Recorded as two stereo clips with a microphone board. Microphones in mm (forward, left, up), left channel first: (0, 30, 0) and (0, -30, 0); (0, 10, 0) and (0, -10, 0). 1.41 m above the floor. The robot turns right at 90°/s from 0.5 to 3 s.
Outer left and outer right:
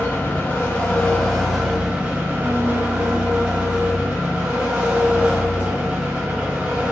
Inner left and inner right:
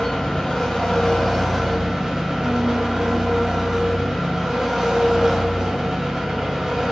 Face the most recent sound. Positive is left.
turn(degrees=-45)